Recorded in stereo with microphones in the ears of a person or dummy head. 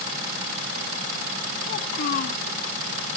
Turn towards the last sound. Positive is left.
turn(degrees=45)  # may be behind; listen again after turning